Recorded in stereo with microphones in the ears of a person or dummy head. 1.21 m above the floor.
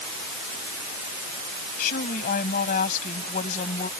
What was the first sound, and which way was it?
A woman speaking, 50° left (ahead or behind).